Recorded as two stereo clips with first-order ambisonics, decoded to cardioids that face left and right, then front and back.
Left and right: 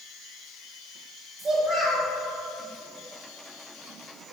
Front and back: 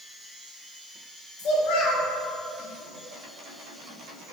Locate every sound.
1.4 s a child speaking: 10° right, 2.0 m